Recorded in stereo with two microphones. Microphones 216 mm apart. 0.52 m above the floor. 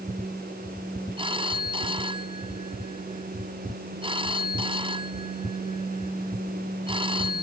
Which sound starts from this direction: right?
A phone ringing, at 1.2 s.